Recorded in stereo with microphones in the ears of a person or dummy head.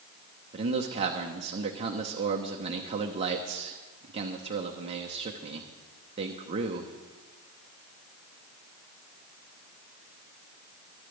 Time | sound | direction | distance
0.5 | a man speaking | 25° right (ahead or behind) | 1.0 m